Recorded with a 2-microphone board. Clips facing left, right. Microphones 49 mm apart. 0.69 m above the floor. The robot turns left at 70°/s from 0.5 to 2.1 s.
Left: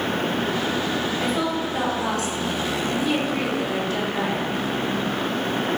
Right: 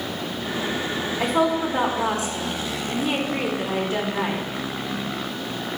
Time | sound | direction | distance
1.2 | a woman speaking | 90° right | 0.8 m